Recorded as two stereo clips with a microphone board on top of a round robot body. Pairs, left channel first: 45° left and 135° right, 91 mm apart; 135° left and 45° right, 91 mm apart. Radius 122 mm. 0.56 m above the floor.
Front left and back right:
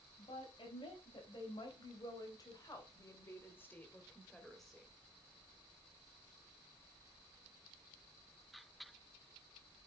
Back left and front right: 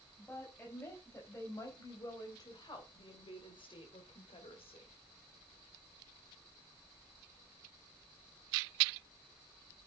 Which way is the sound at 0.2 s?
65° left.